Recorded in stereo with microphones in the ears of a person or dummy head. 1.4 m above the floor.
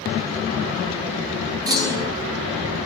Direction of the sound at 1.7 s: 20° right (ahead or behind).